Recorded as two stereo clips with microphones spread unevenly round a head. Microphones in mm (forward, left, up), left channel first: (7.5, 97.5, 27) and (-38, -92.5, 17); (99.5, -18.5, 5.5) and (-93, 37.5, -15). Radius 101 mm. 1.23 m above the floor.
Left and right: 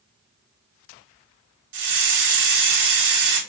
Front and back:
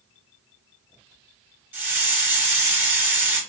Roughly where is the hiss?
Behind right.